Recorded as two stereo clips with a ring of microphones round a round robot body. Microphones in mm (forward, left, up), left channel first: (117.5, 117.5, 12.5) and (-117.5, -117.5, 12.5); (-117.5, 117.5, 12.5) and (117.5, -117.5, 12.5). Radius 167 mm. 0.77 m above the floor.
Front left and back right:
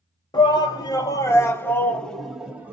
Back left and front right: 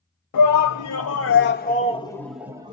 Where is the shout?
120° left, 1.4 m; by 2.7 s 60° right, 0.8 m.